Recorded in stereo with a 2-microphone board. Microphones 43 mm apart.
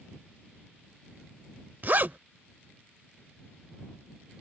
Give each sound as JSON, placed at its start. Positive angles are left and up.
{"t": 1.8, "sound": "a zipper", "side_deg": -45}